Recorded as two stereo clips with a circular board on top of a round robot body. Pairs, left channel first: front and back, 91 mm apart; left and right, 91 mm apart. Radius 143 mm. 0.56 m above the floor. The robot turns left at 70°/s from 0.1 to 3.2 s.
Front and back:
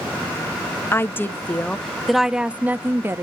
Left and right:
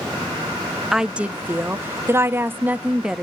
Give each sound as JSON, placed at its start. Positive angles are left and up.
{"t": 0.9, "sound": "a woman speaking", "azimuth_deg": -10, "distance_m": 0.8}